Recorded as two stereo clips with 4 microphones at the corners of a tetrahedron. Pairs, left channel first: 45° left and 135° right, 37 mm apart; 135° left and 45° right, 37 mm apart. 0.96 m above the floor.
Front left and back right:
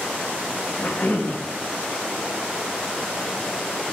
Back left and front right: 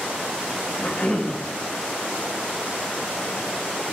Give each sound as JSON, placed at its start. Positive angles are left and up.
{"t": 0.8, "sound": "a cough", "azimuth_deg": 80, "distance_m": 1.8}